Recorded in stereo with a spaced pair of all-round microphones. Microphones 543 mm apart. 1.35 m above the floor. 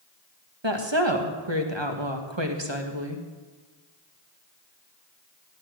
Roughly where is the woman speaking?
Right.